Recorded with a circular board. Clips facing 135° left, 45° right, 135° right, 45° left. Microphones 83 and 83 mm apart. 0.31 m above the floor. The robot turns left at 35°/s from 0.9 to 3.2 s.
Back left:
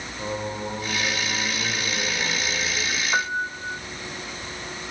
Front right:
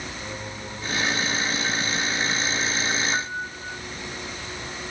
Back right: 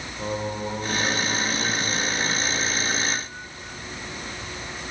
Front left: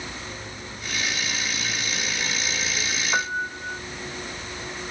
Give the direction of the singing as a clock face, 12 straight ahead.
6 o'clock.